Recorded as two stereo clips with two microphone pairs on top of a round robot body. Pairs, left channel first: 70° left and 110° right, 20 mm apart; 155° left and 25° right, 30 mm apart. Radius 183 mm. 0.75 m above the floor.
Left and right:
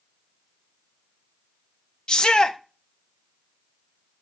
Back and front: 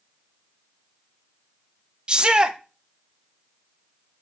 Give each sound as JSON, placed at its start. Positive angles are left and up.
{"t": 2.1, "sound": "a shout", "azimuth_deg": 35, "distance_m": 1.3}